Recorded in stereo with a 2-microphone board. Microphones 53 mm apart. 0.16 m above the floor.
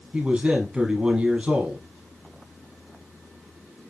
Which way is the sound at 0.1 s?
20° right (ahead or behind).